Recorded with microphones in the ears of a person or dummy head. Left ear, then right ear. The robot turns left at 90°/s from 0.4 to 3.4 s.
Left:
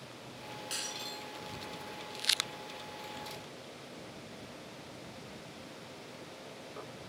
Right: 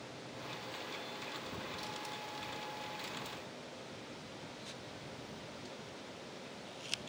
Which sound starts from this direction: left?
Breaking glass, at 0.7 s.